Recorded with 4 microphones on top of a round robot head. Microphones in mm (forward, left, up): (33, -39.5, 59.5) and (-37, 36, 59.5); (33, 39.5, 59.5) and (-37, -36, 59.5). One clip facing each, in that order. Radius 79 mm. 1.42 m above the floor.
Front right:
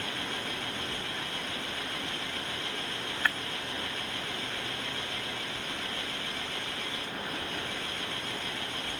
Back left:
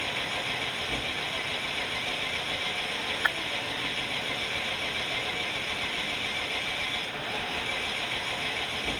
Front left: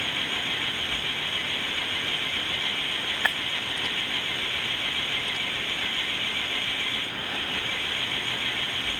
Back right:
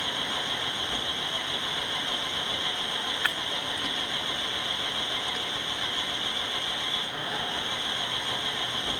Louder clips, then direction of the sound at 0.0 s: Back left 2 dB, even; 155° left.